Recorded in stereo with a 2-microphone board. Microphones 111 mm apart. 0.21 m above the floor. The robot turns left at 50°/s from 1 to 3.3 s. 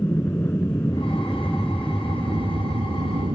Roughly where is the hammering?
I don't hear hammering.